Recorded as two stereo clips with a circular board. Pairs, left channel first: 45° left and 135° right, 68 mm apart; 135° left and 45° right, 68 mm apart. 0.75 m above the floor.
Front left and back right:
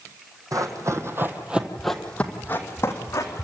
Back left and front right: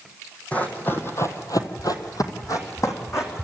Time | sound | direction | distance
0.5 | running footsteps | 155° right | 2 m